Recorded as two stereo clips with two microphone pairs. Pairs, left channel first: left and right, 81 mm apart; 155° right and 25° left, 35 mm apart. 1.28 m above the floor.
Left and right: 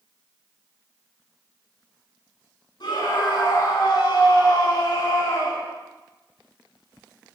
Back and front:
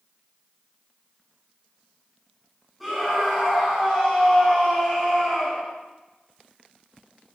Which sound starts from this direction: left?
A scream, at 2.8 s.